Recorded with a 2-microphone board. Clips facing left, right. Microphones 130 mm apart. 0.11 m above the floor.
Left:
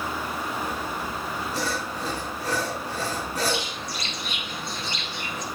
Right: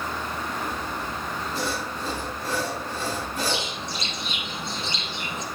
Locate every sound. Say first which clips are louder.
0.6 s sawing: even; 80° left, 4.5 m
3.5 s a bird: even; 25° right (ahead or behind), 1.8 m